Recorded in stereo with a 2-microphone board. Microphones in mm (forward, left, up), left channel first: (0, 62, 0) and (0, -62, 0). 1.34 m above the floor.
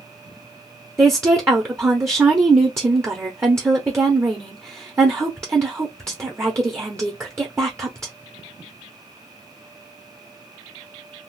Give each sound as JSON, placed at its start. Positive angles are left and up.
{"t": 1.0, "sound": "a woman speaking", "side_deg": -20, "distance_m": 0.9}